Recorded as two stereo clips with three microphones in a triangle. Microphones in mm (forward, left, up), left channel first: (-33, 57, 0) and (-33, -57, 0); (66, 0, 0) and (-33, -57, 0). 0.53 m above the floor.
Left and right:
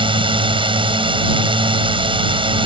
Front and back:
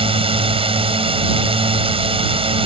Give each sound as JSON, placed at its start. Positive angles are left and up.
{"t": 0.0, "sound": "a drone", "azimuth_deg": -125}